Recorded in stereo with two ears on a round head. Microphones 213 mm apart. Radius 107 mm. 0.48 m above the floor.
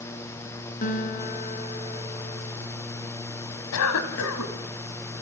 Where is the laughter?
No laughter in this recording.